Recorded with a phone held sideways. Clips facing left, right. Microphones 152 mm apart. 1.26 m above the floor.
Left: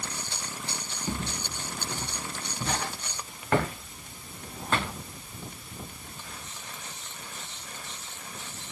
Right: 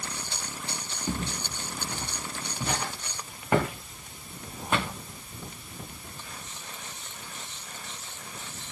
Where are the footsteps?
10° right (ahead or behind), 7 m.